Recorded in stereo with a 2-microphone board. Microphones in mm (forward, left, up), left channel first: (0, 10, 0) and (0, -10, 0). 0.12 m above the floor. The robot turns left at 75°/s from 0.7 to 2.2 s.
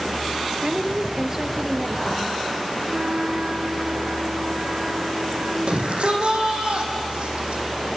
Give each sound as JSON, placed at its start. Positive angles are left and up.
{"t": 0.6, "sound": "a woman speaking", "azimuth_deg": -90, "distance_m": 2.0}
{"t": 2.9, "sound": "a flute", "side_deg": -75, "distance_m": 5.0}
{"t": 5.7, "sound": "a shout", "side_deg": -60, "distance_m": 5.5}